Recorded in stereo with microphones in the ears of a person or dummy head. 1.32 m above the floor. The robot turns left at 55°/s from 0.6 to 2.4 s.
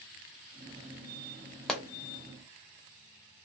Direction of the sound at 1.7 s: Centre (ahead or behind).